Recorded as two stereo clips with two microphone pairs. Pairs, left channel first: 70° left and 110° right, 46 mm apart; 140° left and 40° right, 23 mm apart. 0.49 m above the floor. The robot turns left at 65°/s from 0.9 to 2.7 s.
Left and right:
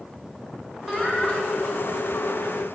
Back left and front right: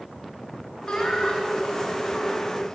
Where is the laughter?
160° left, 1.5 m; by 2.2 s 70° left, 1.5 m.